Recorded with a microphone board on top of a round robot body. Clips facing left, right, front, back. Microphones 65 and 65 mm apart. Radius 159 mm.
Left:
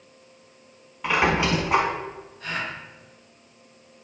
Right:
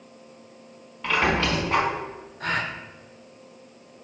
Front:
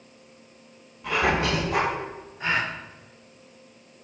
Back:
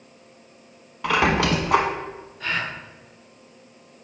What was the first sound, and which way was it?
A squeak, 165° left.